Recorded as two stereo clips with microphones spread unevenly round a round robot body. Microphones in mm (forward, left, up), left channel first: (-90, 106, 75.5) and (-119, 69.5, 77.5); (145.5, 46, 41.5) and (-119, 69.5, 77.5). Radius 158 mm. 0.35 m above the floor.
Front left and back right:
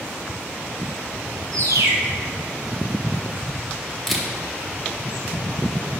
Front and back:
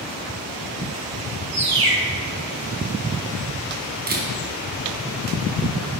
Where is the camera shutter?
135° left, 1.4 m.